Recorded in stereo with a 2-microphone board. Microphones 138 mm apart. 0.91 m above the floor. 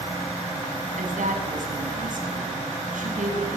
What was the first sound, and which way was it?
A woman speaking, 80° right.